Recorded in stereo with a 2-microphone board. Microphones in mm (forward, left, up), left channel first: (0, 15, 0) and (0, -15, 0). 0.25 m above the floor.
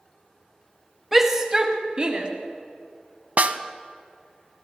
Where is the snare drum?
60° right (ahead or behind), 0.5 m.